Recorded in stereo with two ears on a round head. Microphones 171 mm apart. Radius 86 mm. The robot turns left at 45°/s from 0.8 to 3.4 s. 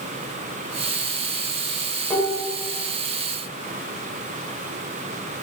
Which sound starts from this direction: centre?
Dishes clattering, at 2.1 s.